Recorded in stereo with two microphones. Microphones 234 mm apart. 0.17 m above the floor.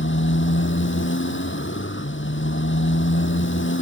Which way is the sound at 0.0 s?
55° left (ahead or behind).